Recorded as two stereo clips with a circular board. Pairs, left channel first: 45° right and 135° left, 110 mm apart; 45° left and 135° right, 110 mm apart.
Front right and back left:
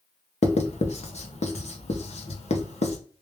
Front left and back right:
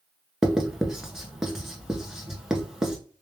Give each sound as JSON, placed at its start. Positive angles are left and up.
{"t": 0.4, "sound": "writing", "azimuth_deg": -50, "distance_m": 0.7}